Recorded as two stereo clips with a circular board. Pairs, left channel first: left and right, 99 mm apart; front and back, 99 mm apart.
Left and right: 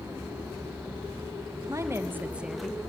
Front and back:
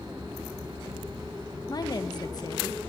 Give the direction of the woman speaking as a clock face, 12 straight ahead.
1 o'clock.